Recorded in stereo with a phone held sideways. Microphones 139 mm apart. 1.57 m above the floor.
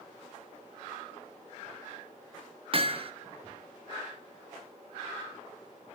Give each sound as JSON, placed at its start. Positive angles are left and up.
{"t": 2.7, "sound": "hammering", "side_deg": -40, "distance_m": 1.0}